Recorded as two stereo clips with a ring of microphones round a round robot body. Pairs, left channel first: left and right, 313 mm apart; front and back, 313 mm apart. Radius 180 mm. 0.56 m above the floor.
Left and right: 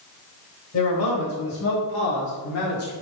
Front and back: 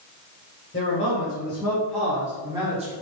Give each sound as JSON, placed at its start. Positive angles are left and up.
{"t": 0.7, "sound": "a man speaking", "azimuth_deg": 70, "distance_m": 2.5}